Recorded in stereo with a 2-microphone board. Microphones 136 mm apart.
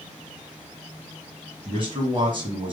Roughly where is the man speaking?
Right.